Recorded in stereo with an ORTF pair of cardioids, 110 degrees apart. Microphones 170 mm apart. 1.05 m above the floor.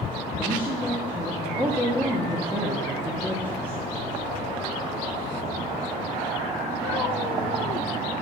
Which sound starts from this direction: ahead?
A woman speaking, at 0.4 s.